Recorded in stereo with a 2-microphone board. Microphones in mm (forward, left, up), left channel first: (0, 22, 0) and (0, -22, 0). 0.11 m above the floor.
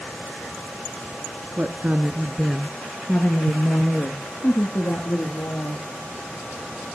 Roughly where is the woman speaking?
Right.